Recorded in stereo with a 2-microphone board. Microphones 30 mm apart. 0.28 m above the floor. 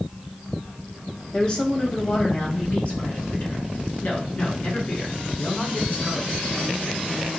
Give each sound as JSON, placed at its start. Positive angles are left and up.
{"t": 1.3, "sound": "a woman speaking", "side_deg": 25, "distance_m": 1.3}